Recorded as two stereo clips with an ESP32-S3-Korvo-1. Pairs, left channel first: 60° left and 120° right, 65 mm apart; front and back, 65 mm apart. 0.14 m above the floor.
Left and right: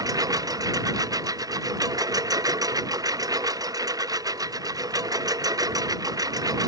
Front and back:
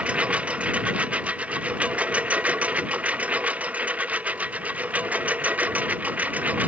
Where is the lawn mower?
110° right; by 6.7 s 115° right.